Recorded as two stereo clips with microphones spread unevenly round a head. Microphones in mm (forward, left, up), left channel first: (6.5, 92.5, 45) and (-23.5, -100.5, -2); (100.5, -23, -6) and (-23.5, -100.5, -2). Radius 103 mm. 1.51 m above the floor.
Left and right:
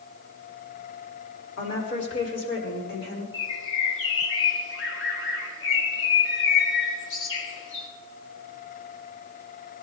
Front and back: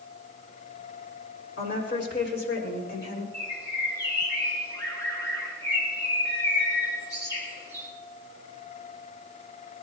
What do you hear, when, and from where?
1.6 s a woman speaking: 50° left, 5 m; by 3.2 s 40° left, 4.5 m
3.3 s a bird: 110° left, 3 m